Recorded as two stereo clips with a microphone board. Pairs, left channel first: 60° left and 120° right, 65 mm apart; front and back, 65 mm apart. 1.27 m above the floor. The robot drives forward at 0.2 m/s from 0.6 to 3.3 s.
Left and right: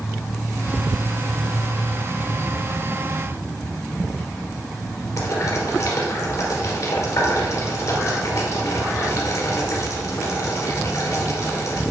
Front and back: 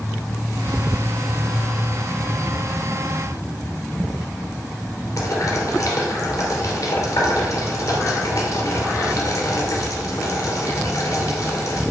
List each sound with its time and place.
5.2 s boiling: 35° left, 2 m